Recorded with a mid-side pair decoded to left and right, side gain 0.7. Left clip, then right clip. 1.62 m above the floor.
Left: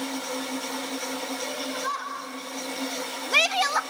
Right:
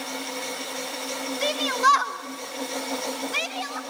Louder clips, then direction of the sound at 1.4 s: Right 13 dB; 70° right.